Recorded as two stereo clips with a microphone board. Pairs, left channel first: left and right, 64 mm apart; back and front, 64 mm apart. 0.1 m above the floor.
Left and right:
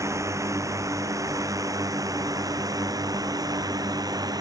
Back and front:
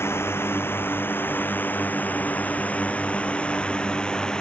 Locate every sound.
0.0 s a drone: 130° right; by 4.4 s 100° right